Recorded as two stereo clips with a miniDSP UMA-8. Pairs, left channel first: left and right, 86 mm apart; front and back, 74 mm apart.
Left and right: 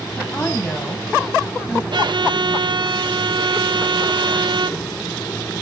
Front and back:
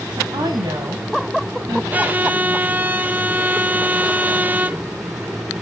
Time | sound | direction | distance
0.2 | a woman speaking | 150° left | 3.5 m
1.9 | a violin | 115° right | 0.6 m